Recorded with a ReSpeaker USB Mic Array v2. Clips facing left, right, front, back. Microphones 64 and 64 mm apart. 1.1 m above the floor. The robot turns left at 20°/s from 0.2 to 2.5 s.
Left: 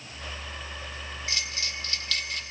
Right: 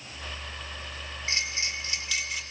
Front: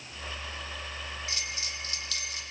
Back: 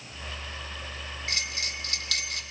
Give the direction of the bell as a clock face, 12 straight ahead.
5 o'clock.